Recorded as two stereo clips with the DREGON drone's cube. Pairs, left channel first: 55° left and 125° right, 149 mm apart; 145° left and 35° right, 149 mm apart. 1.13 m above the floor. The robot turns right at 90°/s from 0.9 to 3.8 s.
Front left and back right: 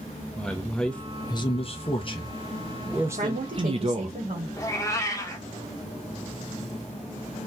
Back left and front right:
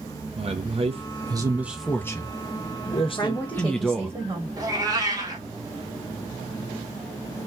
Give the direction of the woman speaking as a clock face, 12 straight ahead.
5 o'clock.